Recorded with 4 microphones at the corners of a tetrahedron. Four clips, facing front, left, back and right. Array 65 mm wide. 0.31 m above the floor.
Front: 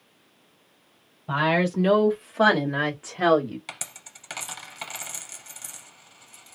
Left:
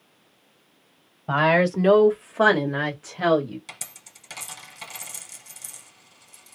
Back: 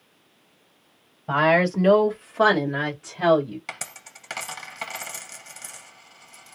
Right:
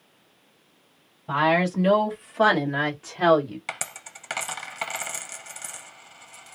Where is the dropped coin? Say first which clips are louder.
Right 9 dB, back 4 dB; 105° right, 0.7 m.